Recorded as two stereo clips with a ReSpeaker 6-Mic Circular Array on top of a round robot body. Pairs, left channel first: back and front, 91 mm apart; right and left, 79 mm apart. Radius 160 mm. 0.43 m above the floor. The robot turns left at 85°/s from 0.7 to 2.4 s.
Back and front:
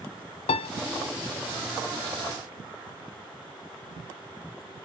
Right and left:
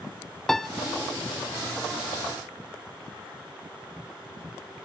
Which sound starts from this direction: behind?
A piano, at 0.5 s.